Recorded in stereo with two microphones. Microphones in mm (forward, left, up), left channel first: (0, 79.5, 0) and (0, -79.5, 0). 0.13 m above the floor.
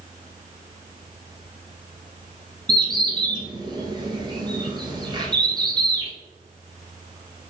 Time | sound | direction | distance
2.7 | a bird | 30° right (ahead or behind) | 1.2 m